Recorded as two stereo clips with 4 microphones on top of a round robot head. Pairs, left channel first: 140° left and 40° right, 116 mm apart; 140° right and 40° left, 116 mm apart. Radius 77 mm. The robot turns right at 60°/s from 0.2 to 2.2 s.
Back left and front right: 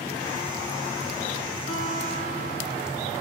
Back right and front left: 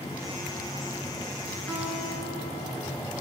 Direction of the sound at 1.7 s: 140° left.